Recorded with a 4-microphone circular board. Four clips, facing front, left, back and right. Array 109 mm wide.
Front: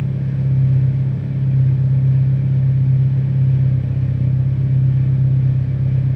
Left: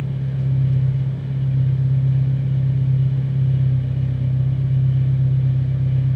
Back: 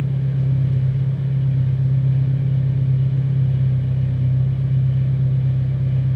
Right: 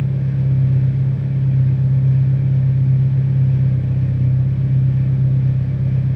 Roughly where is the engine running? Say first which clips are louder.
Right 4 dB, front 1 dB; ahead.